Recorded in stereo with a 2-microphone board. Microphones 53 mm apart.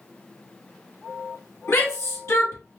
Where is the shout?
55° left (ahead or behind), 1.6 m.